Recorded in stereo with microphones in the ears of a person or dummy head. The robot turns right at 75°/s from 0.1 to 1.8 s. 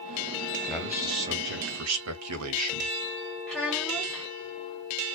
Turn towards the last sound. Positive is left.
turn(degrees=0)  # may be behind; listen again after turning